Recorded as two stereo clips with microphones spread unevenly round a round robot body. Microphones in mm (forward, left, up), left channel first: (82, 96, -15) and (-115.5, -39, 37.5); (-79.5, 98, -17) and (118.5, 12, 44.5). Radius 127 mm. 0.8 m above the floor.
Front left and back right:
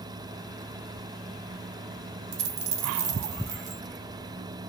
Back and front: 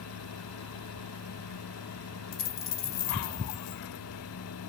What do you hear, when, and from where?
2.3 s a dropped coin: 160° right, 0.6 m